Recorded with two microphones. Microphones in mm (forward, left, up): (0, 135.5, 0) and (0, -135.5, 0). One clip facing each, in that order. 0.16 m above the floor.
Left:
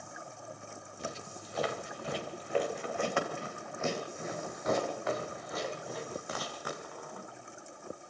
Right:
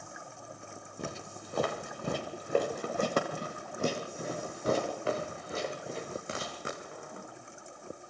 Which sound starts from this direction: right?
Footsteps, at 1.0 s.